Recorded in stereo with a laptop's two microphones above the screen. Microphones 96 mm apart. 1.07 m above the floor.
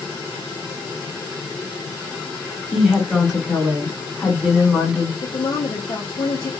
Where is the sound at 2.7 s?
5° left (ahead or behind), 2.5 m.